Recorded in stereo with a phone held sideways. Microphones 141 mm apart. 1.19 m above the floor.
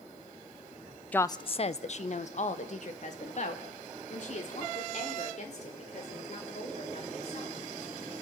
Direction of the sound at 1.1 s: 10° left (ahead or behind).